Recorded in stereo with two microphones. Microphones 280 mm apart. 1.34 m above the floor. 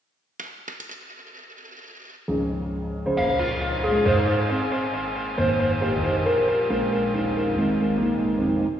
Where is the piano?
Centre (ahead or behind), 0.7 m.